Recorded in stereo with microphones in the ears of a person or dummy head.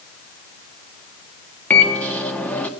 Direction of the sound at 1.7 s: 10° left (ahead or behind).